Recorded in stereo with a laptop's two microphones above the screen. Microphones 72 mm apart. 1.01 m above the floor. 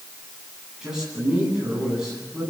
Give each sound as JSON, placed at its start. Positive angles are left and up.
{"t": 0.8, "sound": "a man speaking", "side_deg": -10, "distance_m": 10.0}